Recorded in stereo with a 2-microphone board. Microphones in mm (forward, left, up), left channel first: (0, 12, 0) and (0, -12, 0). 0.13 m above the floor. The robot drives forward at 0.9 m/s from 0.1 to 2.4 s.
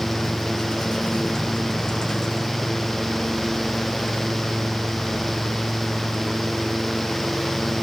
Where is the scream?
No scream in this recording.